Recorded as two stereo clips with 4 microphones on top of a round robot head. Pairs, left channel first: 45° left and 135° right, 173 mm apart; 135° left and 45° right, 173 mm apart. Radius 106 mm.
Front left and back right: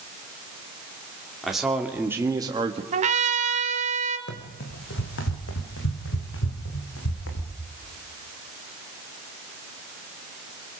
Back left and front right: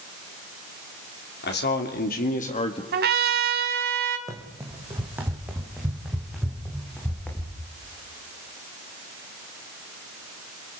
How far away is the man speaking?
About 2.5 m.